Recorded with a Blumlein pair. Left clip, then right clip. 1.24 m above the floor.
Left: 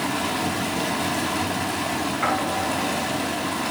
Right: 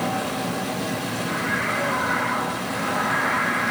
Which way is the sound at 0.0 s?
40° left.